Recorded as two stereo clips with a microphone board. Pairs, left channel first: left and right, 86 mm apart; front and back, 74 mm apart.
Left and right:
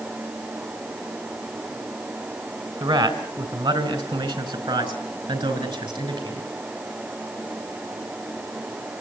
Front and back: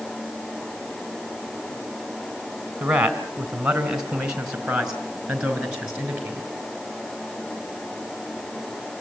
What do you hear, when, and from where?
2.8 s a man speaking: 100° right, 2.5 m